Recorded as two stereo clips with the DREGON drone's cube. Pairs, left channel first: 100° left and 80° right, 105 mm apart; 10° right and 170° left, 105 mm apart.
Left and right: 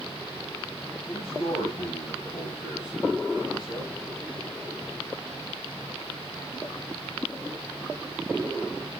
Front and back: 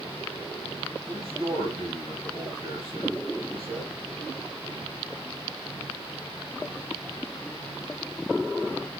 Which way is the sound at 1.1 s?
140° left.